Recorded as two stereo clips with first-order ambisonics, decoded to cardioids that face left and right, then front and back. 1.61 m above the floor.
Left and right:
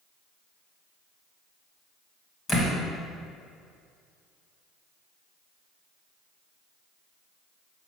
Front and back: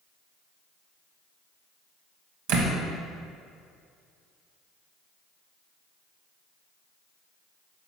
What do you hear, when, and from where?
2.5 s a door slam: 165° left, 1.4 m